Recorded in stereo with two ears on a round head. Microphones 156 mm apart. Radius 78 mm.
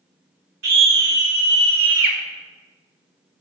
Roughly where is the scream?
Right.